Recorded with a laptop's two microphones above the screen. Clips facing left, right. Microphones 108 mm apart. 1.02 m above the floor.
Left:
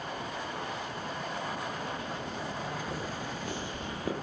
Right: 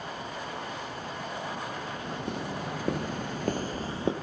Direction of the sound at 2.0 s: 65° right (ahead or behind).